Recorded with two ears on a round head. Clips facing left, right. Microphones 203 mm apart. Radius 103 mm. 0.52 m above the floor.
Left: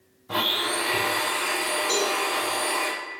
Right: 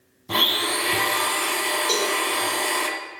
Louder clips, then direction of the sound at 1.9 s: Right 1 dB; 45° right (ahead or behind).